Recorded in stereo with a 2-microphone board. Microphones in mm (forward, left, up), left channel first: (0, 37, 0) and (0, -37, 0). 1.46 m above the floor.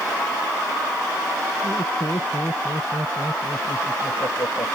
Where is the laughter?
75° left (ahead or behind); by 4.7 s 70° left (ahead or behind).